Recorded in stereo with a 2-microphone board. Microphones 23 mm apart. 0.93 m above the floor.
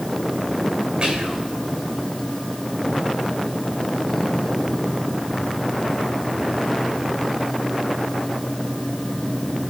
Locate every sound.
1.0 s whispering: 55° right (ahead or behind), 3.5 m